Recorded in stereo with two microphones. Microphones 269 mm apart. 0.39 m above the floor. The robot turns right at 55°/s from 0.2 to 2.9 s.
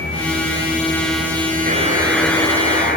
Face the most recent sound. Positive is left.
turn(degrees=40)